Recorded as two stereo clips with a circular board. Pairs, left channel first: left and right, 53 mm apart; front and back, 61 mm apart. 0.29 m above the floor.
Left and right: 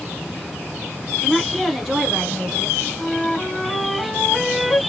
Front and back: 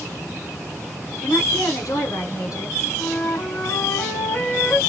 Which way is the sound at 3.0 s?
5° left.